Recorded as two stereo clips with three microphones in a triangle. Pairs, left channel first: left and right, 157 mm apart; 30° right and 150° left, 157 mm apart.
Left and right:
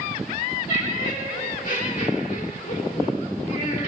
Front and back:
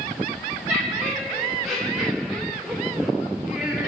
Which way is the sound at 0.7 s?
60° left.